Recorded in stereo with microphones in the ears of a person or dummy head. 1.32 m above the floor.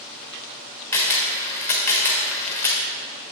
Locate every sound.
0.9 s a camera shutter: 15° left (ahead or behind), 1.3 m